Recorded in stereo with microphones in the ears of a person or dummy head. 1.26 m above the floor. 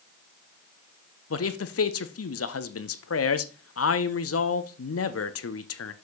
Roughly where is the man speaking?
Left.